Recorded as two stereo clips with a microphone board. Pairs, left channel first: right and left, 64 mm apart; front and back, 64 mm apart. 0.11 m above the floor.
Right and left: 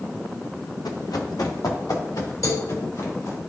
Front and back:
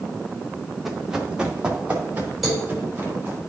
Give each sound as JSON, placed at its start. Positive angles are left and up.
{"t": 0.8, "sound": "running footsteps", "azimuth_deg": -95, "distance_m": 1.7}
{"t": 2.4, "sound": "a cowbell", "azimuth_deg": -90, "distance_m": 4.0}